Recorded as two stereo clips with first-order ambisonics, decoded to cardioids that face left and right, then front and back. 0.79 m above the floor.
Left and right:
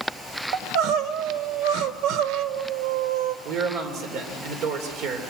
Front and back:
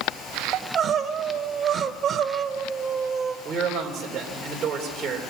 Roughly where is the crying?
Behind right.